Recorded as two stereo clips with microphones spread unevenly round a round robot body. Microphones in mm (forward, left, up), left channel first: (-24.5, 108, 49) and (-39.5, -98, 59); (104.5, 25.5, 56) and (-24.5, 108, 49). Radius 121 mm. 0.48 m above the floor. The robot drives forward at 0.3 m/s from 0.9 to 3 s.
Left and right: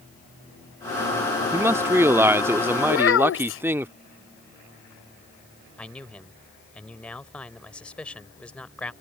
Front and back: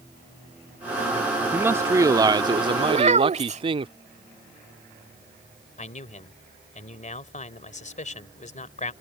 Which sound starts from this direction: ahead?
A man speaking, at 5.8 s.